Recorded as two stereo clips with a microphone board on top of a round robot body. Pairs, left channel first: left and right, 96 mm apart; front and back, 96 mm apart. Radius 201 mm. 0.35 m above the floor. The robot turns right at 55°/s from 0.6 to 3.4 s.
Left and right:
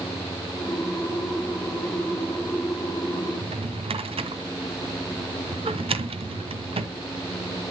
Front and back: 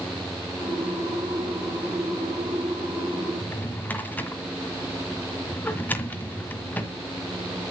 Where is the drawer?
70° right, 1.7 m.